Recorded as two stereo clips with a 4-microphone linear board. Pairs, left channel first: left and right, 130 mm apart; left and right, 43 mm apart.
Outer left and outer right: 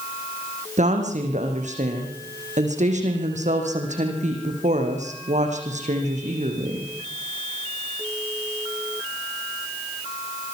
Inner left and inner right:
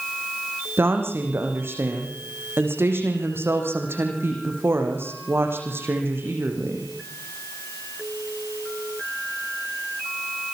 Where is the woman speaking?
65° right (ahead or behind), 5.5 m.